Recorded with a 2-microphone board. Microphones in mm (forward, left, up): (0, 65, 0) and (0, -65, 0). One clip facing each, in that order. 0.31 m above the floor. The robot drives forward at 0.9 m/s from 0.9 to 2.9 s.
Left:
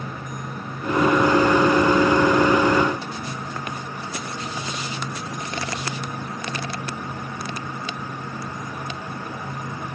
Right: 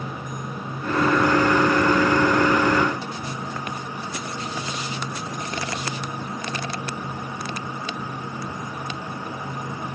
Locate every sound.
Only background noise.